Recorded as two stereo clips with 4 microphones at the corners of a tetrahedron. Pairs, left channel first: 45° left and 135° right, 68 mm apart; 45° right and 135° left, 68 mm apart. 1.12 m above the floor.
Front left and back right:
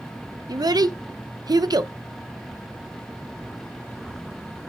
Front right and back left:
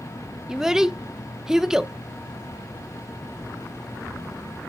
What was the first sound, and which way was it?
A child speaking, 145° right.